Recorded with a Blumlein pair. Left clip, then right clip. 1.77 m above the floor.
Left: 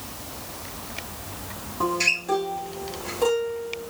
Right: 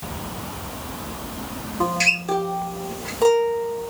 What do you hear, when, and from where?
1.8 s a guitar: 20° right, 0.9 m